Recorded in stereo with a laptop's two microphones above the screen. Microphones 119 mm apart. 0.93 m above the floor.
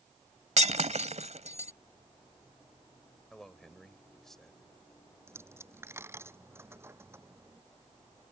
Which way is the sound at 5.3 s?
20° right (ahead or behind).